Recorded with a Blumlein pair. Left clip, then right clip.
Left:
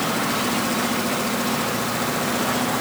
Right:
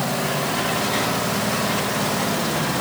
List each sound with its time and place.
Only background noise.